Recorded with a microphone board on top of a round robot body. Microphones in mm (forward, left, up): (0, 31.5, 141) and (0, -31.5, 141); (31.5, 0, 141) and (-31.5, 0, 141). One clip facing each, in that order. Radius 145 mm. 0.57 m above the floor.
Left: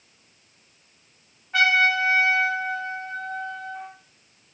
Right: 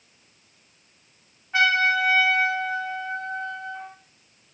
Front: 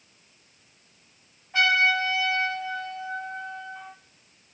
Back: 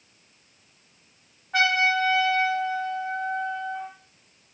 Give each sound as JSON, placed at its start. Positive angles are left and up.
{"t": 1.5, "sound": "a trumpet", "azimuth_deg": -175, "distance_m": 1.1}